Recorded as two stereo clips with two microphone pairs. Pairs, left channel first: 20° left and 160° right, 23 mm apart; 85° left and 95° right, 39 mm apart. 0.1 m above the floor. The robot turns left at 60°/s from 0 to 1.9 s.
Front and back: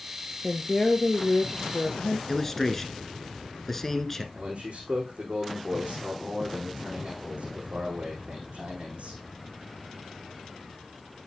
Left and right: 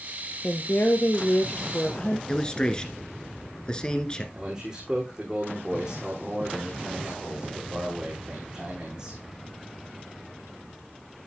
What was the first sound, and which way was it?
A woman speaking, 115° left.